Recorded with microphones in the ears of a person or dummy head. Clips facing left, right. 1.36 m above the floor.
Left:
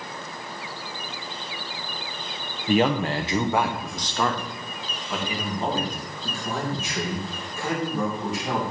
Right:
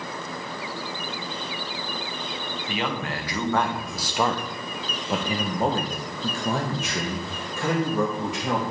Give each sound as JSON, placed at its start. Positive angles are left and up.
{"t": 2.7, "sound": "a man speaking", "side_deg": 35, "distance_m": 0.9}